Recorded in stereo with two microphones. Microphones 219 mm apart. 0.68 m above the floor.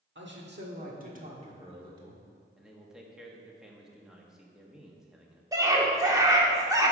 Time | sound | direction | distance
0.1 | a man speaking | 60° right (ahead or behind) | 1.6 m
2.6 | a man speaking | centre (ahead or behind) | 1.2 m
5.5 | a scream | 15° right (ahead or behind) | 1.5 m